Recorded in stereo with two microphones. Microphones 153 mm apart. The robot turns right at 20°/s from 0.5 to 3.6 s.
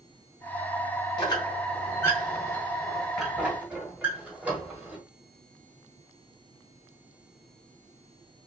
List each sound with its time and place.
1.2 s a squeak: 30° left (ahead or behind), 1.3 m; by 5.0 s 10° right (ahead or behind), 1.3 m